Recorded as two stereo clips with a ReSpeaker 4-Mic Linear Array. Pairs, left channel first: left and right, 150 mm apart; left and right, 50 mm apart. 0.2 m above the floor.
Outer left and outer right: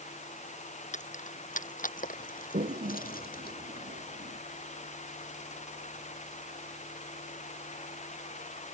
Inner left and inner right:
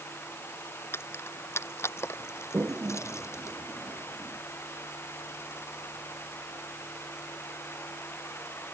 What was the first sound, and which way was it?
Keys jangling, 55° left (ahead or behind).